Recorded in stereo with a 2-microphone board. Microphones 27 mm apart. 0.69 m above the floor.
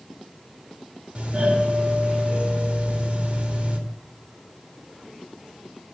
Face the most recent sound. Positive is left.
turn(degrees=-50)  # may be behind; listen again after turning